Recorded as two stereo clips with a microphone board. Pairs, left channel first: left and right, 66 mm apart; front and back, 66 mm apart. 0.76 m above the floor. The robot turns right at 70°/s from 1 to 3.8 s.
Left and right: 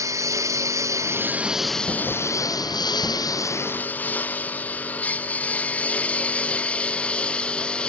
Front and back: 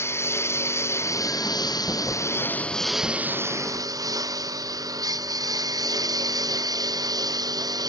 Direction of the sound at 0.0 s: 50° right.